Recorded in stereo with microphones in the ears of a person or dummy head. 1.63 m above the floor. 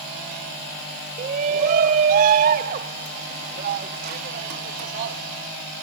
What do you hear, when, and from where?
1.2 s a shout: 40° right (ahead or behind); by 5.2 s 50° right (ahead or behind)